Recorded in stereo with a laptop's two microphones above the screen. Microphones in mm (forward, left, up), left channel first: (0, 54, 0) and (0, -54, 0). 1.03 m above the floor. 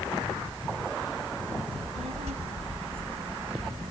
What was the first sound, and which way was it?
A child speaking, 75° right (ahead or behind).